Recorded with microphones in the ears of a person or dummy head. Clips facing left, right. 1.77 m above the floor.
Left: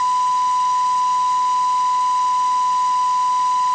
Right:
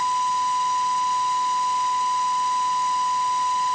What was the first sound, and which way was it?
Only background noise.